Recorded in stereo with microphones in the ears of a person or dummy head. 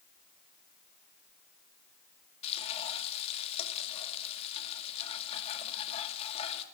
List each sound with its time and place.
2.4 s frying: 30° left (ahead or behind), 2 m